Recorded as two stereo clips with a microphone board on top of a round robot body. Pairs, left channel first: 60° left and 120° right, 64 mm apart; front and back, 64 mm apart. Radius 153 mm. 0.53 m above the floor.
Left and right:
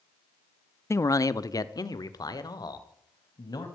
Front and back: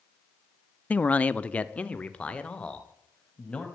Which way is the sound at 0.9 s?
55° left.